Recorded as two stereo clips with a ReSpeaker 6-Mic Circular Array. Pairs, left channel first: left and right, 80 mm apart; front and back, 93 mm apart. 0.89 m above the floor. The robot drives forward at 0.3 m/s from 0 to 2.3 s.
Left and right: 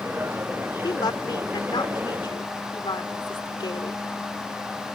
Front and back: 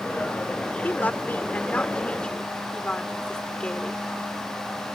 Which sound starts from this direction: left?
A woman speaking, at 0.8 s.